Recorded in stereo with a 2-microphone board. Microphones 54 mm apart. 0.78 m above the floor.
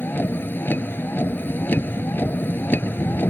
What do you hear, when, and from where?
0.0 s a vehicle: 40° left (ahead or behind)